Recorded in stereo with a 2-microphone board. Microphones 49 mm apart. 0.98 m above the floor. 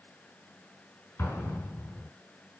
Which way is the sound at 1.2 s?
50° left (ahead or behind).